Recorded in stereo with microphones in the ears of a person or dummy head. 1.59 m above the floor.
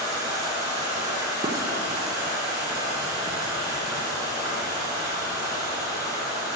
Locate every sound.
0.0 s running water: 20° right (ahead or behind), 2.0 m
1.4 s dishes clattering: 20° right (ahead or behind), 0.7 m